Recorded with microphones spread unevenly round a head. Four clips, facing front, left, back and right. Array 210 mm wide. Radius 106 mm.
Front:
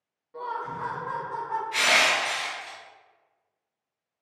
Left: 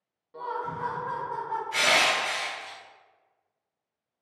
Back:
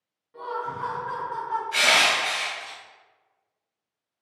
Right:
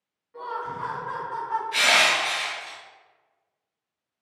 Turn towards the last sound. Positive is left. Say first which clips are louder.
# right 1 dB, back 1 dB
turn(degrees=110)